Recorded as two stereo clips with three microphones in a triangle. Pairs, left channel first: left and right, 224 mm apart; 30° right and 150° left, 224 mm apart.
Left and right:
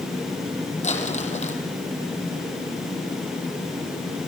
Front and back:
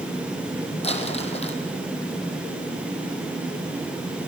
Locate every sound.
0.8 s crumpling: 30° left, 3.5 m